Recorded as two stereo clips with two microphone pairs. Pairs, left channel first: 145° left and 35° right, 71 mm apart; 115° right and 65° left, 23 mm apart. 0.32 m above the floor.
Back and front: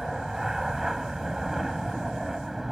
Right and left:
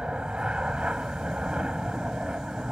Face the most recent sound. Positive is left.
turn(degrees=55)